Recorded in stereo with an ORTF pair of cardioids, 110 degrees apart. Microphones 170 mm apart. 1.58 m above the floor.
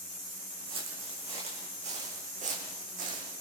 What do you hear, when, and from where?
0.7 s footsteps: 35° right, 6.5 m; by 3.3 s 55° right, 6 m